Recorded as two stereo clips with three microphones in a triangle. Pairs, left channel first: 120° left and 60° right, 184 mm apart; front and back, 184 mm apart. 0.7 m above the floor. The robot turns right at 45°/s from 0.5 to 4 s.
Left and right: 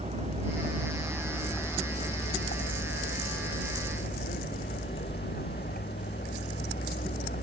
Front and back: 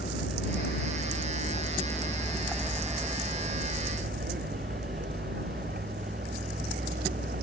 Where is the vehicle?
5° right; by 7.4 s 150° left.